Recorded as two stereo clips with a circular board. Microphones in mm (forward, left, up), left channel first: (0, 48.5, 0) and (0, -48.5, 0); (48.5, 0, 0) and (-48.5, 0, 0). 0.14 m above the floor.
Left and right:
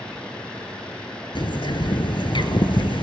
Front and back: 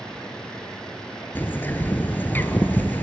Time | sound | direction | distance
1.4 | a bird | 65° left | 1.0 m